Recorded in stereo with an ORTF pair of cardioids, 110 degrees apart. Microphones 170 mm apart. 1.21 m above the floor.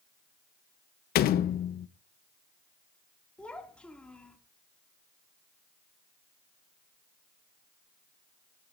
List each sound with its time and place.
1.1 s a door slam: 65° left, 0.7 m
3.4 s a child speaking: 5° left, 2 m